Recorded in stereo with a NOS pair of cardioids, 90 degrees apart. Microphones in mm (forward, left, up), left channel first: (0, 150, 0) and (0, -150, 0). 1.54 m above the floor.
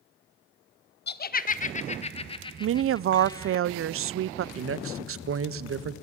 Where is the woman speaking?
50° right, 0.6 m.